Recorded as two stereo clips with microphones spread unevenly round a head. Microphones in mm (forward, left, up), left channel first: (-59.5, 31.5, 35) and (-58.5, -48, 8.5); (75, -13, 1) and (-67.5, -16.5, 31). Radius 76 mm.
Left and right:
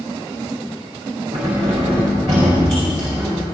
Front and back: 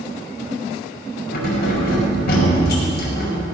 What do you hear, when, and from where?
1.3 s keys jangling: 20° right, 4 m